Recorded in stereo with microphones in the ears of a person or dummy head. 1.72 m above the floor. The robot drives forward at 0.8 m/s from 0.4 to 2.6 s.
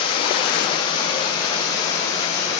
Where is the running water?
25° left (ahead or behind), 3 m; by 2.6 s 15° left (ahead or behind), 4.5 m.